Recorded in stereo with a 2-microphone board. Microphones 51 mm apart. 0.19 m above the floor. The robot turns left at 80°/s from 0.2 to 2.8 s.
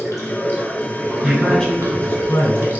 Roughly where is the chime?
I don't hear a chime.